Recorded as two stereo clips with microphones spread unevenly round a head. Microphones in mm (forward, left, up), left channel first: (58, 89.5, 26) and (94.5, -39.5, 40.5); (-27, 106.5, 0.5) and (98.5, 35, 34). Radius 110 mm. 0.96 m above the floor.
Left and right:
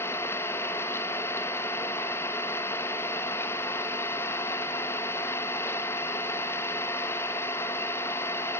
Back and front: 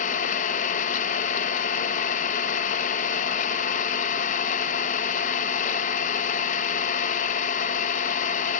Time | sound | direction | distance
0.0 | an engine running | straight behind | 0.7 m